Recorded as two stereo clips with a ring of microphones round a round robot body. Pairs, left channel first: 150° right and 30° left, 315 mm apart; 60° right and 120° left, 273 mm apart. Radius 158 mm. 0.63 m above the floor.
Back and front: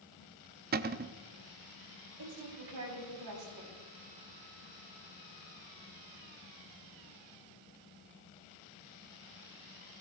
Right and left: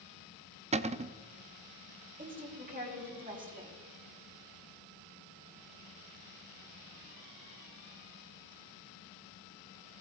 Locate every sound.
0.7 s a cupboard door: 70° left, 0.6 m
2.2 s a woman speaking: 60° left, 5.5 m